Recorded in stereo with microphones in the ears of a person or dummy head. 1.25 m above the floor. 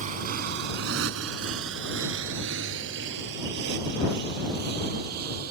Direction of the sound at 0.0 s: 50° right (ahead or behind).